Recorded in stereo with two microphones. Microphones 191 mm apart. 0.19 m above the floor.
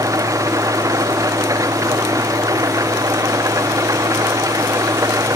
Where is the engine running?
15° right (ahead or behind).